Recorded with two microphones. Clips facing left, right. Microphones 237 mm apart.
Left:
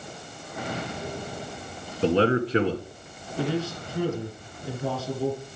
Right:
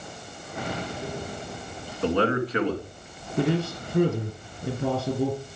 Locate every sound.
2.0 s a man speaking: 30° left (ahead or behind), 1.5 m
3.4 s a man speaking: 60° right (ahead or behind), 3.5 m